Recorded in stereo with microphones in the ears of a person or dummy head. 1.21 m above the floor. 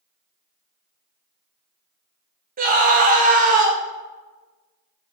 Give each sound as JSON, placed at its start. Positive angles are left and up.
{"t": 2.6, "sound": "a scream", "side_deg": -35, "distance_m": 0.7}